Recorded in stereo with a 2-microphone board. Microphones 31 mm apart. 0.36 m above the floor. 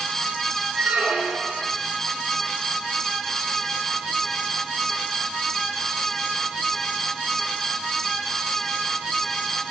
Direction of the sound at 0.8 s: 75° right (ahead or behind).